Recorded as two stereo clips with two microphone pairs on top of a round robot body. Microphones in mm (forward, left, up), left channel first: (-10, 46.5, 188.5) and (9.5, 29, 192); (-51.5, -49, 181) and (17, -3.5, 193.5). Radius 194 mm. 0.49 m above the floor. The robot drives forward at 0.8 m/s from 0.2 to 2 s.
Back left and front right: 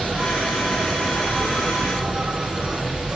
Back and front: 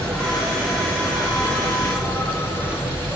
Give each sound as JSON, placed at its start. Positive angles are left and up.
{"t": 0.0, "sound": "an insect", "azimuth_deg": -65, "distance_m": 5.0}